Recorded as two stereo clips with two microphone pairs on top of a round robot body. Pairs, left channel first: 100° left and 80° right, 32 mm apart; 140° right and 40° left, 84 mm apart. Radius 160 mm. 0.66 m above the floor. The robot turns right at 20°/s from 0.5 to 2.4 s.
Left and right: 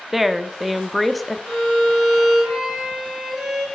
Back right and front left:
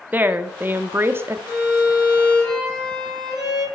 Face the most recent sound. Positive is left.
turn(degrees=-15)